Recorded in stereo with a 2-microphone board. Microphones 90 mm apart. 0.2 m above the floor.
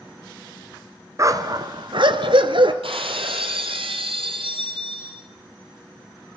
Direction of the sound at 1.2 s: 35° right (ahead or behind).